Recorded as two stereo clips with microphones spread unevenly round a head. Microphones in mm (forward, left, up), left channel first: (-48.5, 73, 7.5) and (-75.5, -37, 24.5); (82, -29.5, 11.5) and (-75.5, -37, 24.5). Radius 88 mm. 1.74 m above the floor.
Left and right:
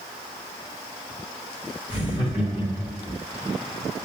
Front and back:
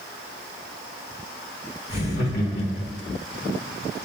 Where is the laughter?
20° right, 3 m; by 3.1 s 5° left, 3 m.